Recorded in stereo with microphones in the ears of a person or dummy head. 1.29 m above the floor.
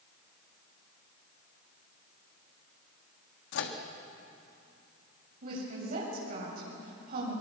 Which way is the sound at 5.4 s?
50° right (ahead or behind).